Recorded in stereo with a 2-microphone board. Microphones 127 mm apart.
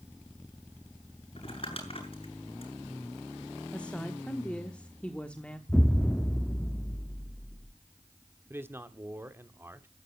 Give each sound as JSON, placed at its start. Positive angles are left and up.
{"t": 1.4, "sound": "crumpling", "side_deg": 50, "distance_m": 7.5}
{"t": 3.7, "sound": "a woman speaking", "side_deg": 10, "distance_m": 1.2}
{"t": 5.7, "sound": "an explosion", "side_deg": 15, "distance_m": 0.6}
{"t": 8.5, "sound": "a man speaking", "side_deg": -20, "distance_m": 1.1}